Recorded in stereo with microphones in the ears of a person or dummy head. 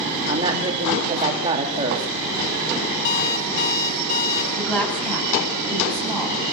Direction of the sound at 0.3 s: 25° right (ahead or behind).